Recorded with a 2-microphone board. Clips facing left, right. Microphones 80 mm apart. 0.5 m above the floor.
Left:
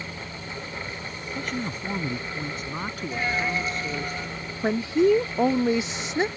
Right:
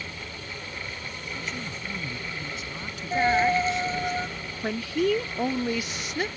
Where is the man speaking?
50° left (ahead or behind); by 4.1 s 45° left (ahead or behind).